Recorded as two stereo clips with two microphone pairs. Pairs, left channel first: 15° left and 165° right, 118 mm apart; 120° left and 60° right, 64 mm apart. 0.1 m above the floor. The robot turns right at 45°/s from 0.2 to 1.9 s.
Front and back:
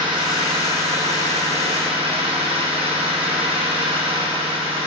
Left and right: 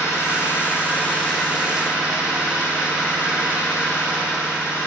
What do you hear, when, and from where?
0.0 s an engine running: 150° left, 4.5 m; by 4.9 s 130° right, 4.5 m